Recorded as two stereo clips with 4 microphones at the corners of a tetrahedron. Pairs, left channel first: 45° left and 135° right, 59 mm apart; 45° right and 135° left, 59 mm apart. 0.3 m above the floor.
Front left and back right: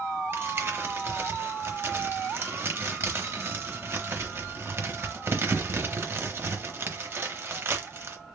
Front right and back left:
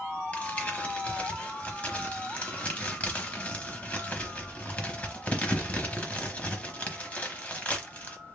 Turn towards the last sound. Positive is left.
turn(degrees=-105)